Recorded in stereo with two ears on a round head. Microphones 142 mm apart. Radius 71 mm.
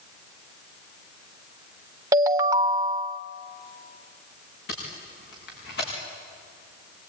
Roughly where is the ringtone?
Right.